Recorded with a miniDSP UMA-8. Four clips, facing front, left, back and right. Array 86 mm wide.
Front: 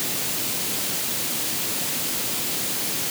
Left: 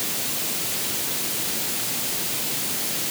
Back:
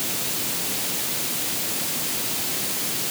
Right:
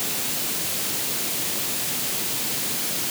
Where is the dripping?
No dripping in this recording.